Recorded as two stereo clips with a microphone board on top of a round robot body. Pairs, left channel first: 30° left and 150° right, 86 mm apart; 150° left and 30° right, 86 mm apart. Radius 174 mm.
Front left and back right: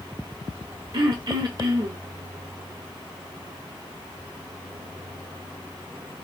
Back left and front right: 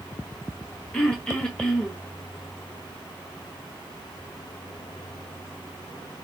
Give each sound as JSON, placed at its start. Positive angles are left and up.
{"t": 0.9, "sound": "throat clearing", "azimuth_deg": -135, "distance_m": 1.9}